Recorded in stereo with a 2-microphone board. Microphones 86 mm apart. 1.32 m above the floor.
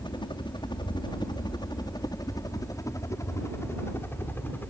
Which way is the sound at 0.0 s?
65° left (ahead or behind).